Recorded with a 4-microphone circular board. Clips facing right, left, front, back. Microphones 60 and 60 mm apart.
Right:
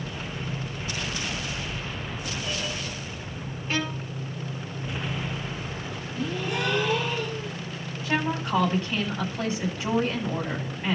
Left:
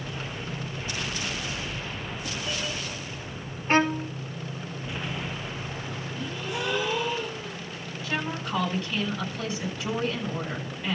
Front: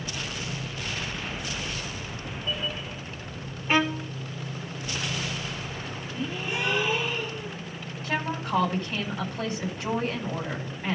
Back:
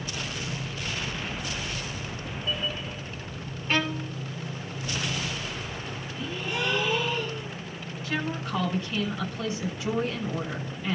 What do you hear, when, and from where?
3.7 s a violin: 65° left, 1.0 m
6.2 s a gasp: 65° right, 6 m
8.0 s a woman speaking: 35° right, 9.5 m